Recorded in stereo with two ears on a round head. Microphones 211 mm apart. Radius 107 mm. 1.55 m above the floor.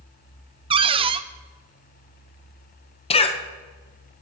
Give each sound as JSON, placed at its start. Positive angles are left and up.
{"t": 0.7, "sound": "a cupboard door", "side_deg": -25, "distance_m": 0.5}
{"t": 3.1, "sound": "a cough", "side_deg": 25, "distance_m": 1.2}